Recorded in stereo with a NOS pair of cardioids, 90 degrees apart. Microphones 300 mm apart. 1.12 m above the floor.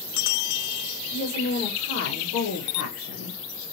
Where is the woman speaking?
60° left, 1.9 m.